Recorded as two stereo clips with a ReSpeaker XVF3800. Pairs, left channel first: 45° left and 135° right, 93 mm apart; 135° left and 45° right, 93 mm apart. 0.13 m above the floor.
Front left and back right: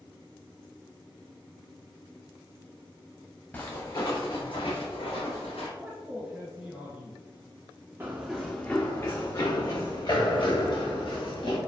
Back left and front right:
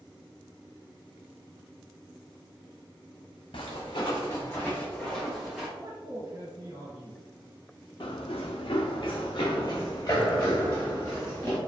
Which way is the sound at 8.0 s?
160° left.